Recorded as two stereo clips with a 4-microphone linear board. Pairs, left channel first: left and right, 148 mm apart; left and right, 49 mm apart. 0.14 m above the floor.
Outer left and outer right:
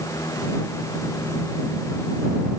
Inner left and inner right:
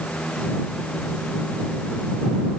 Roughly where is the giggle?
No giggle in this recording.